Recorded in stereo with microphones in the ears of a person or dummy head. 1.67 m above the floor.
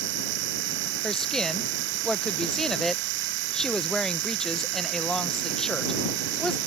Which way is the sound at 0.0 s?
65° right (ahead or behind).